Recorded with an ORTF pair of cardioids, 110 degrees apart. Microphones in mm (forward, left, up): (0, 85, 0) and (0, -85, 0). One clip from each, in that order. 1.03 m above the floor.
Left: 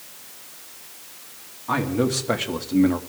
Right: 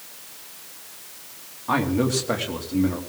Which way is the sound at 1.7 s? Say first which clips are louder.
Right 1 dB; 10° right.